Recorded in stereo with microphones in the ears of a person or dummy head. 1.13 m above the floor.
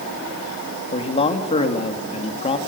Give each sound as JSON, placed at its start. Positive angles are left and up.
{"t": 0.9, "sound": "a man speaking", "side_deg": 30, "distance_m": 2.5}